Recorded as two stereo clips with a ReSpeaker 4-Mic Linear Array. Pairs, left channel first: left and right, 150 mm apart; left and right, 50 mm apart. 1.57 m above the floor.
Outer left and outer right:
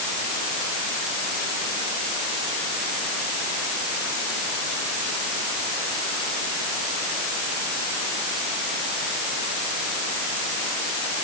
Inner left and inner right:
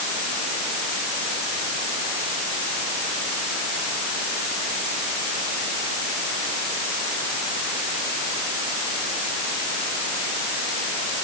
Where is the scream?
No scream in this recording.